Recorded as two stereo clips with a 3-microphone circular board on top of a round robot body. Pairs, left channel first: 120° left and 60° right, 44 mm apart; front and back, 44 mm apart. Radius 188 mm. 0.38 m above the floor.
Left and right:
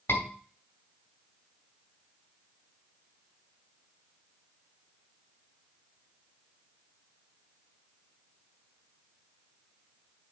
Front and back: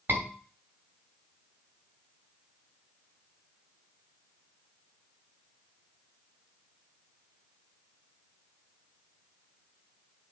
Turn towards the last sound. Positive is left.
turn(degrees=135)